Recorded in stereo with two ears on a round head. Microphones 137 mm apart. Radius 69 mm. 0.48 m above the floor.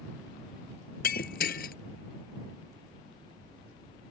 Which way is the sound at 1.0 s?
65° left (ahead or behind).